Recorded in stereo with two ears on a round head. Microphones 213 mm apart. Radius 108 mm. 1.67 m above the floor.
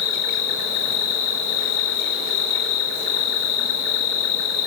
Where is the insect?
75° left (ahead or behind), 5 m.